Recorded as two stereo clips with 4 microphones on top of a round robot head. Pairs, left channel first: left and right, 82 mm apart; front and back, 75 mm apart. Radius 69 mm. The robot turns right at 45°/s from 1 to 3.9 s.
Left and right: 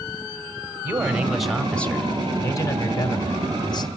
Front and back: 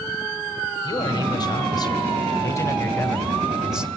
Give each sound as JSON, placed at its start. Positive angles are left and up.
{"t": 0.8, "sound": "a man speaking", "azimuth_deg": -25, "distance_m": 2.5}